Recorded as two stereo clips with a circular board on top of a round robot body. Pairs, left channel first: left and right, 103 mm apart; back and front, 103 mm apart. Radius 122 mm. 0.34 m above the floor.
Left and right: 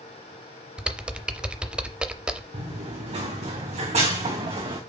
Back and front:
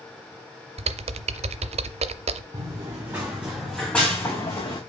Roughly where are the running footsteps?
Ahead right.